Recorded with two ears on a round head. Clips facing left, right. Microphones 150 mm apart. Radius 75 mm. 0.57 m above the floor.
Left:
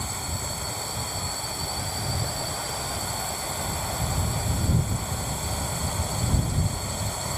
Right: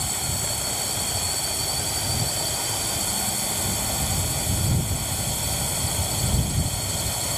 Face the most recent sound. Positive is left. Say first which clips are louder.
# right 2 dB
turn(degrees=-35)  # may be behind; listen again after turning